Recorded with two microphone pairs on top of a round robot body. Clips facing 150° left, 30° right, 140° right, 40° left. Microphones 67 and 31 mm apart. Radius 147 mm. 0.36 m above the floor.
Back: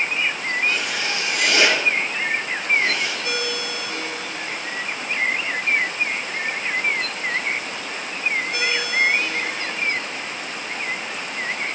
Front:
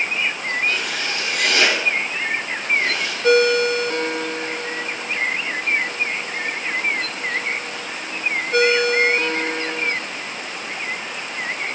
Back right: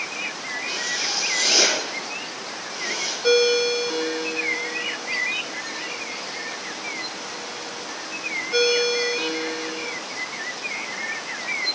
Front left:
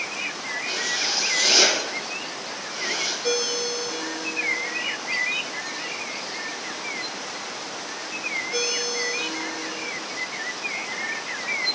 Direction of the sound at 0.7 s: 120° left.